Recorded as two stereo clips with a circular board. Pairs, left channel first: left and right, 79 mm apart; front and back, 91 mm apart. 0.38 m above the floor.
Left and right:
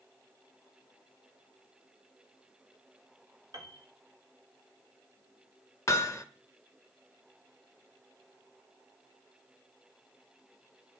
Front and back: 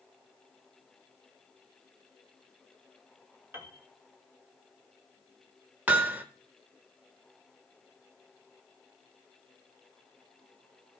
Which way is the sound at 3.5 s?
115° right.